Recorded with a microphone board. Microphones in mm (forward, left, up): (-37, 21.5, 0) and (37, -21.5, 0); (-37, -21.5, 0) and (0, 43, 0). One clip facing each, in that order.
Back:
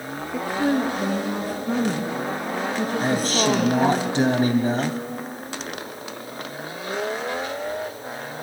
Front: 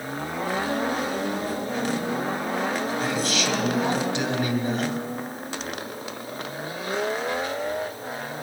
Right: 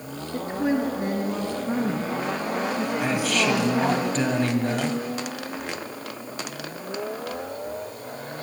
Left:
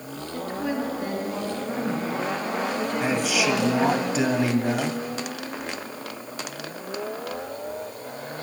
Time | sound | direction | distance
0.3 | a woman speaking | straight behind | 3 m
3.0 | a man speaking | 135° left | 1.8 m